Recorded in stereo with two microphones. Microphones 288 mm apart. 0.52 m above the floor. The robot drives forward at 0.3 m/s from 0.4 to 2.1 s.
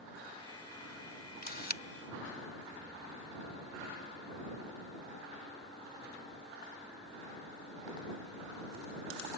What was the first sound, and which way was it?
A camera shutter, 30° left (ahead or behind).